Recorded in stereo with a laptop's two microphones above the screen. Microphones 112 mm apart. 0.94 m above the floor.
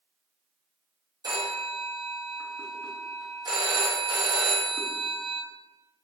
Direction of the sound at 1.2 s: 35° right (ahead or behind).